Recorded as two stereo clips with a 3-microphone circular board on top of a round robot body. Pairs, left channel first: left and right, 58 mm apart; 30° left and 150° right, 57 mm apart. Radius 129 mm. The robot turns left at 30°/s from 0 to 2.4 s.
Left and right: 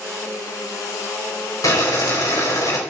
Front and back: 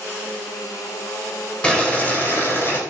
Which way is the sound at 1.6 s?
105° left.